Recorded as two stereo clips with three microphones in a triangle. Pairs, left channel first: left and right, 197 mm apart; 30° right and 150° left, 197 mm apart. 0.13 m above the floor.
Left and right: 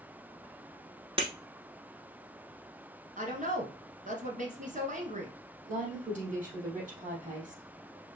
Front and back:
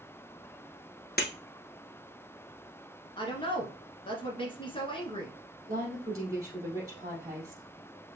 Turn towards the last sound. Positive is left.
turn(degrees=-140)